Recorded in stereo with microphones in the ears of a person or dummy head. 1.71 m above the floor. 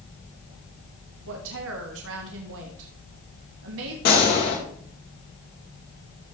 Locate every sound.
1.3 s a woman speaking: 65° right (ahead or behind), 1.4 m
4.0 s a gunshot: 50° left (ahead or behind), 2.5 m